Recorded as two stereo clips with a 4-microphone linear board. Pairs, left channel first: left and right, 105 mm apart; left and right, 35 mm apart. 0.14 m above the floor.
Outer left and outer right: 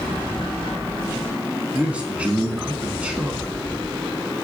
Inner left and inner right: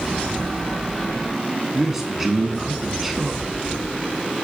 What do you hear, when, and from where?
1.7 s a man speaking: 15° right (ahead or behind), 1.3 m